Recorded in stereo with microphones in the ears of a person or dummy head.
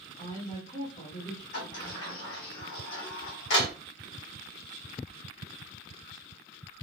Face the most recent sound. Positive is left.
turn(degrees=60)  # may be behind; listen again after turning